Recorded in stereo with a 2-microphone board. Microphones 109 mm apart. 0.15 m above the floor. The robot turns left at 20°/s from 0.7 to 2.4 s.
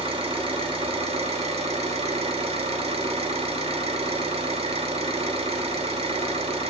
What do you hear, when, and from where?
0.0 s an engine running: 65° right, 0.7 m; by 6.7 s 100° right, 0.7 m